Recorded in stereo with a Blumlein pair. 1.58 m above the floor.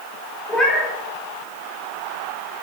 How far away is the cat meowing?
About 3.5 m.